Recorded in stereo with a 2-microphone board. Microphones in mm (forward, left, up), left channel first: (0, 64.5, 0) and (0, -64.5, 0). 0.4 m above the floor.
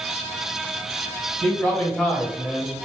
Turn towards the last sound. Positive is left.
turn(degrees=-15)  # may be behind; listen again after turning